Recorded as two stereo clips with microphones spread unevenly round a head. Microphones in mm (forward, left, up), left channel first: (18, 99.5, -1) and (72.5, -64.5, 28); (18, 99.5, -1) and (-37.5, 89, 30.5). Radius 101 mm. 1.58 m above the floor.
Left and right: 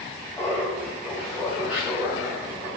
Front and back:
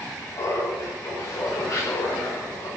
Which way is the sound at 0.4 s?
30° left.